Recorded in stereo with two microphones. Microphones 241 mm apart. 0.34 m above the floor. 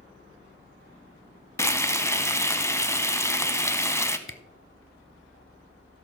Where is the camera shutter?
55° left (ahead or behind), 0.7 m.